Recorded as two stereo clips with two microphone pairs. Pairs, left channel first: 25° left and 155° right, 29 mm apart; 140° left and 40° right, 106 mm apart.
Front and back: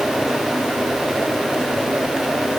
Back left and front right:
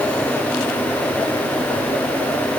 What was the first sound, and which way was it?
Only background noise.